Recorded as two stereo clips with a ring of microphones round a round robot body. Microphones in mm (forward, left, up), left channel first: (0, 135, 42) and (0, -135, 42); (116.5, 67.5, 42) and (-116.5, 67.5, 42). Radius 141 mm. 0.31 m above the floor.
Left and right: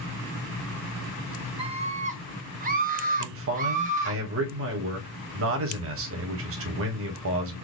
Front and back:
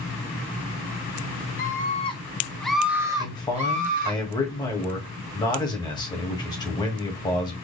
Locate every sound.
1.6 s a scream: 35° right, 1.4 m; by 4.2 s 145° right, 1.6 m
3.2 s a man speaking: 70° right, 1.6 m